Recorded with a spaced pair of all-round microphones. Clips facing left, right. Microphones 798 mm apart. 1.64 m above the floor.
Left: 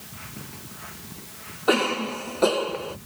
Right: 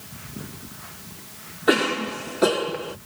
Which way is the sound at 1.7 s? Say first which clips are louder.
Right 2 dB; 50° right (ahead or behind).